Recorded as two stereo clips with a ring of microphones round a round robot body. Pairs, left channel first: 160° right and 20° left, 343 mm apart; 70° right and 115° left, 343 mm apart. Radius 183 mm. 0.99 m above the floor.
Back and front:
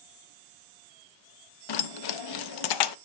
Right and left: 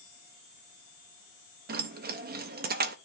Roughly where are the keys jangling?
Behind.